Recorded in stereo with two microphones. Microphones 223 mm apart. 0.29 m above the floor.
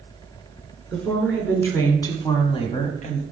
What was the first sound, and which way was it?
A woman speaking, 5° left (ahead or behind).